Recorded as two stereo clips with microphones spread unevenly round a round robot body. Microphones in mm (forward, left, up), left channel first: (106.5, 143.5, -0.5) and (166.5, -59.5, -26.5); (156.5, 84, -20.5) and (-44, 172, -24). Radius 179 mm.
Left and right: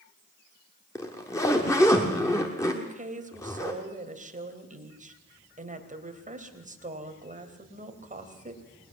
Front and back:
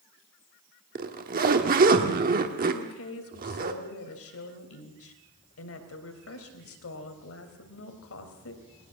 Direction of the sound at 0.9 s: 170° right.